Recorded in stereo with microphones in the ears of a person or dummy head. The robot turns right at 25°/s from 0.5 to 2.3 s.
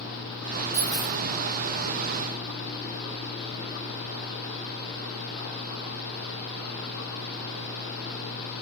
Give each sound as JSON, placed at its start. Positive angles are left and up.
{"t": 0.7, "sound": "a dropped coin", "side_deg": 40, "distance_m": 1.0}